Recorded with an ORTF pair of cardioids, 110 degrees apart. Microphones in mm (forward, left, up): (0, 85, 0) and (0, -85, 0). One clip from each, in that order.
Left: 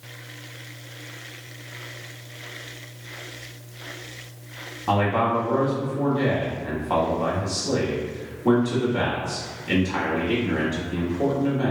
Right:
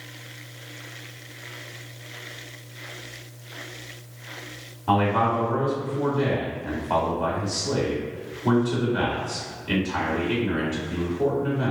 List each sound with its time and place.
4.9 s a man speaking: 5° left, 1.1 m